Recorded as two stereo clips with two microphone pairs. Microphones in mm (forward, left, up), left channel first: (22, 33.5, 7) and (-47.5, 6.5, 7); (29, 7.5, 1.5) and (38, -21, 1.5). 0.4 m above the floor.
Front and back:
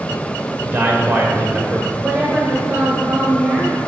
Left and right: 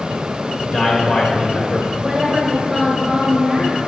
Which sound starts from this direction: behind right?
A woman speaking, at 2.0 s.